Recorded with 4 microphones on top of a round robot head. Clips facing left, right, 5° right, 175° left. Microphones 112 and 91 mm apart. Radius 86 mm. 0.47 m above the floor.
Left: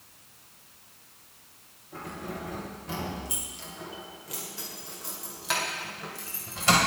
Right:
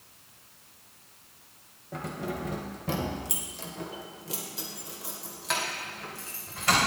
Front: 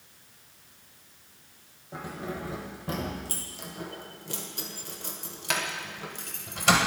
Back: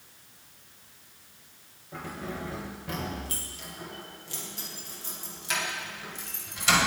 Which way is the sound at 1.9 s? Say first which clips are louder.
Right 3 dB, front 1 dB; 80° right.